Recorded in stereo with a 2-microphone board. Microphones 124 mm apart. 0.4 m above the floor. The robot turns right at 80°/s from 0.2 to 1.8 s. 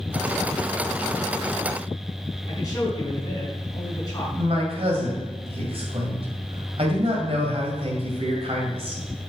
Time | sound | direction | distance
2.5 | a man speaking | 30° left (ahead or behind) | 4 m
4.4 | a man speaking | 50° right (ahead or behind) | 2 m